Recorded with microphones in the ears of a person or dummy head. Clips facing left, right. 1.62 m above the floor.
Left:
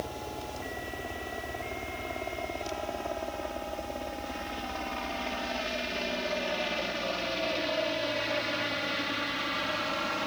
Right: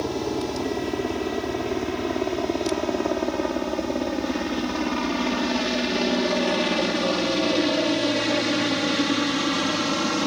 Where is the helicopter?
75° right (ahead or behind); by 10.3 s 60° right (ahead or behind).